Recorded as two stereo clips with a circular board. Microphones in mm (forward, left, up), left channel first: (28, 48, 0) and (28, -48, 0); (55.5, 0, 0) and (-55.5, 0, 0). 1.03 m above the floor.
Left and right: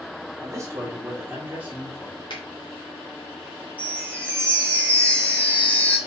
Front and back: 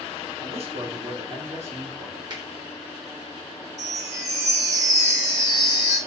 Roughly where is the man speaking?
Behind right.